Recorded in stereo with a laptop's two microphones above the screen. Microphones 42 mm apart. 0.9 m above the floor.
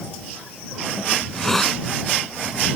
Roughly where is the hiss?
Centre.